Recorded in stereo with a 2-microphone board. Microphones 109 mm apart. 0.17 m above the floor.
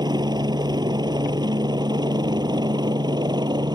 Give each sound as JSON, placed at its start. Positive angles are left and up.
{"t": 0.0, "sound": "a helicopter", "side_deg": -45}